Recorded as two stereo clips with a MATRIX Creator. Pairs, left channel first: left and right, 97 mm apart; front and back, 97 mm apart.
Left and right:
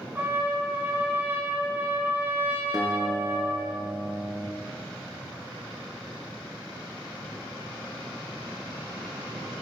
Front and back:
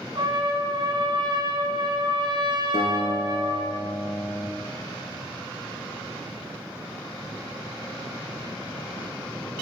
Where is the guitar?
Straight ahead, 1.9 m.